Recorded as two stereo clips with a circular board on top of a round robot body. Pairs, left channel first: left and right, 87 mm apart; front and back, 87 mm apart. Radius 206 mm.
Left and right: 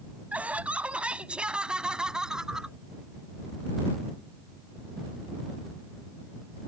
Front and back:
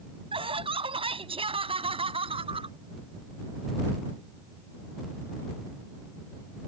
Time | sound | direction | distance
0.3 | laughter | 165° right | ?